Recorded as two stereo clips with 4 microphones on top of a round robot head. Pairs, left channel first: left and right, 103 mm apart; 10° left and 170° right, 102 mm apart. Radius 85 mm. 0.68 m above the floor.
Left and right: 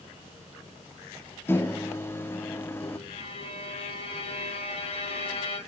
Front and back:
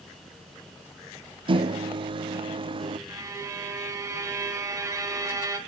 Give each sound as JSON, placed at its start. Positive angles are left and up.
{"t": 1.5, "sound": "a microwave", "azimuth_deg": 160, "distance_m": 0.8}
{"t": 3.1, "sound": "a violin", "azimuth_deg": 130, "distance_m": 3.0}